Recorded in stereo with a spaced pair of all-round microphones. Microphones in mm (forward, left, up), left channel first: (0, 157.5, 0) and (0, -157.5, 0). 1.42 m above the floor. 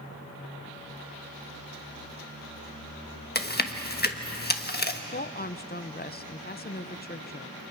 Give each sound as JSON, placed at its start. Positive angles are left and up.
{"t": 3.4, "sound": "chewing", "side_deg": 30, "distance_m": 1.3}
{"t": 5.1, "sound": "a woman speaking", "side_deg": 30, "distance_m": 0.8}